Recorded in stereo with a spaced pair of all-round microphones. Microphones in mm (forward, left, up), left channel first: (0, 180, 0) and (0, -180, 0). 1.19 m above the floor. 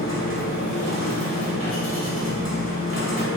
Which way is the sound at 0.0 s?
45° left (ahead or behind).